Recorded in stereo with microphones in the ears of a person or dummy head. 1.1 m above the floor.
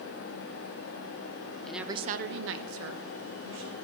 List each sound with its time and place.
1.6 s a woman speaking: 5° left (ahead or behind), 0.7 m; by 3.7 s 70° right (ahead or behind), 2 m